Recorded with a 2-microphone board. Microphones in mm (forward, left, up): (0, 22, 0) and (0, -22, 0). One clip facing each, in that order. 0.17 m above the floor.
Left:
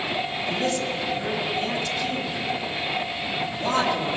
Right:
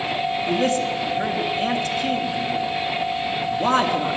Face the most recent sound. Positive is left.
turn(degrees=-45)  # may be behind; listen again after turning